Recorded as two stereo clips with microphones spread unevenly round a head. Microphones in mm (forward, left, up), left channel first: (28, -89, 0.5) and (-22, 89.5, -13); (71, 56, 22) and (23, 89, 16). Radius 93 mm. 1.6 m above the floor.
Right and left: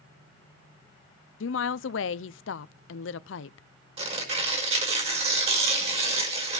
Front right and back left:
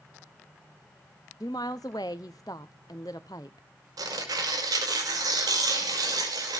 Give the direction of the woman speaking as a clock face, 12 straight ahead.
3 o'clock.